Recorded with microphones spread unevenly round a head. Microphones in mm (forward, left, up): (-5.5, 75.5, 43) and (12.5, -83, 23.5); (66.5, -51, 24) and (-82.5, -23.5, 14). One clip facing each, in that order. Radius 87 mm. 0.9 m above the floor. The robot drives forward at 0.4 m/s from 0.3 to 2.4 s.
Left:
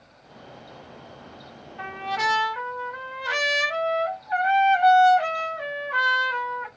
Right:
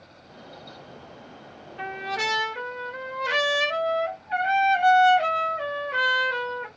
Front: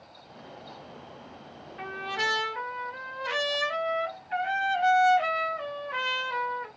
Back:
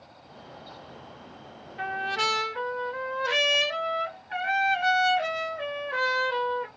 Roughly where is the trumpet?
Behind right.